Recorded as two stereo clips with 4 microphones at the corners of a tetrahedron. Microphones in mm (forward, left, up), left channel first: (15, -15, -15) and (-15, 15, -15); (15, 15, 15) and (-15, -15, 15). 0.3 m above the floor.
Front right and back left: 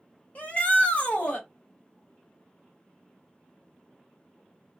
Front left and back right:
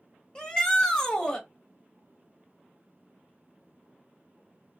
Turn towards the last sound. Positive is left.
turn(degrees=-20)